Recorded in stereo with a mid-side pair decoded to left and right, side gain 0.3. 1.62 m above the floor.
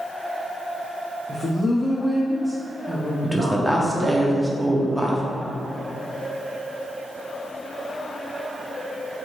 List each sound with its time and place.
1.3 s a woman speaking: 50° left, 0.6 m; by 4.2 s 55° right, 1.3 m
3.2 s a woman speaking: 5° left, 0.7 m